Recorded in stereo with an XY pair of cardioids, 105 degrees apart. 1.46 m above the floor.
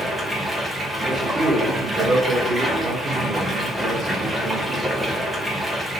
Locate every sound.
0.0 s running water: 15° right, 1.0 m
1.0 s a man speaking: 35° right, 1.5 m